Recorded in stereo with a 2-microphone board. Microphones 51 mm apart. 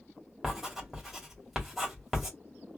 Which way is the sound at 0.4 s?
5° right (ahead or behind).